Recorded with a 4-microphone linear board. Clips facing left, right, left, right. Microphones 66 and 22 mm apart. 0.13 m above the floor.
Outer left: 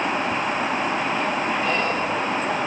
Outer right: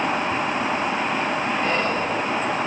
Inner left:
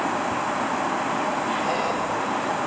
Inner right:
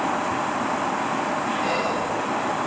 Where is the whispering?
40° right (ahead or behind), 1.9 m.